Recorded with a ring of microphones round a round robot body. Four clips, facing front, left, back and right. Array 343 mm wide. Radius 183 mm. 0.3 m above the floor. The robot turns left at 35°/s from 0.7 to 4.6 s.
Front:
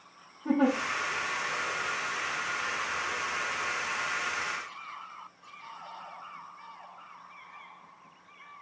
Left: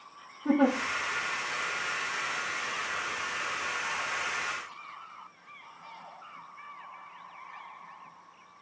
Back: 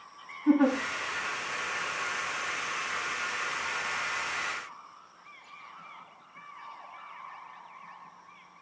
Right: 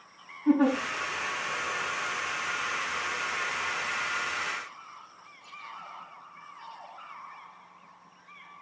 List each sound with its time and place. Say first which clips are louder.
0.5 s a giggle: right 2 dB, back 3 dB; 60° left, 6 m